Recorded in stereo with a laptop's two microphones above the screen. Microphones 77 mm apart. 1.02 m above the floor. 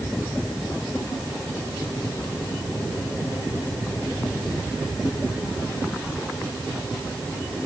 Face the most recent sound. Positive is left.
No sound to turn to.